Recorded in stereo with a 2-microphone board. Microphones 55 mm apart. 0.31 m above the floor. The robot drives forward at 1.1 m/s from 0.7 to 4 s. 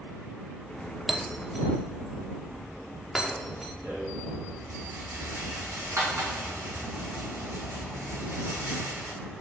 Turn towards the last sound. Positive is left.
turn(degrees=-65)  # may be behind; listen again after turning